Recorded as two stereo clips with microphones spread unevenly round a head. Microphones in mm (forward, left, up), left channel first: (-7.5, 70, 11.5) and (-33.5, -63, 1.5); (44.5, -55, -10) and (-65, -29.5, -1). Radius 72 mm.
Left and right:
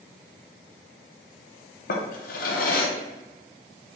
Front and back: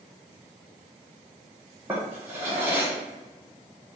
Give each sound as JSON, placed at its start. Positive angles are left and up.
{"t": 1.9, "sound": "a drawer", "azimuth_deg": 95, "distance_m": 0.7}